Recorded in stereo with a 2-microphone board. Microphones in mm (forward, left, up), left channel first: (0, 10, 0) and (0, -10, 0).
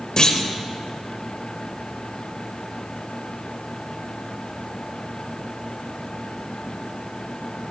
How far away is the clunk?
About 1.1 m.